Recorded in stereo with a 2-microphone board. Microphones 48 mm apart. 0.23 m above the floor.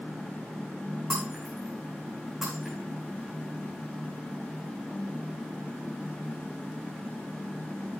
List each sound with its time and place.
1.1 s breaking glass: 10° right (ahead or behind), 7 m